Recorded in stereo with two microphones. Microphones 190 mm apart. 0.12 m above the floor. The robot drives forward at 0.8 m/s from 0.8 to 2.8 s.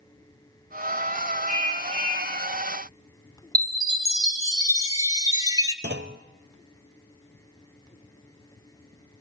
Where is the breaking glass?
I don't hear breaking glass.